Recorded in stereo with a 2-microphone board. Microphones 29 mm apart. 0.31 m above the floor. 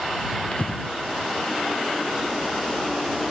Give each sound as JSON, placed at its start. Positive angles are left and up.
{"t": 0.5, "sound": "breathing", "side_deg": 40}